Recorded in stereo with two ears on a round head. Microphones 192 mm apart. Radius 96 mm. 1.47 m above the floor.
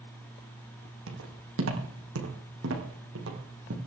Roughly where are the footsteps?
Right.